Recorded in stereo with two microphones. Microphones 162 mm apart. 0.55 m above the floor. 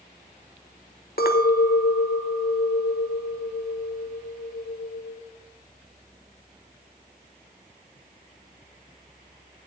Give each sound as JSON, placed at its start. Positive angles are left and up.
{"t": 1.2, "sound": "a clink", "side_deg": 70, "distance_m": 0.9}